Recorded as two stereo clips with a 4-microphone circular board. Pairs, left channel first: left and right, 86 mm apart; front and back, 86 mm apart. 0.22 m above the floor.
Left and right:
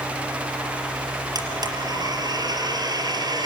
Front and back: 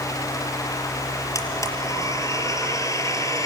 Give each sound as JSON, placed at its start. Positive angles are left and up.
{"t": 1.4, "sound": "a blender", "azimuth_deg": -50, "distance_m": 4.0}